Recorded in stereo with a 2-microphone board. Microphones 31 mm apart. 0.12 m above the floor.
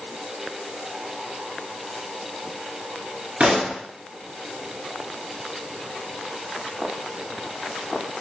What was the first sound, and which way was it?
A pop, 45° right (ahead or behind).